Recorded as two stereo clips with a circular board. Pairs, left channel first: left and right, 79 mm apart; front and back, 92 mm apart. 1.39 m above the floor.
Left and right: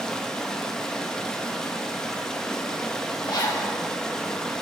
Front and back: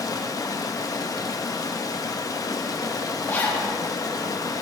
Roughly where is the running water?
Ahead.